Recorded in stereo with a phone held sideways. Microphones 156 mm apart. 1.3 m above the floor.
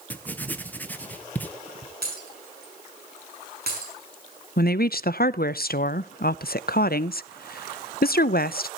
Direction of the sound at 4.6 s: 75° left (ahead or behind).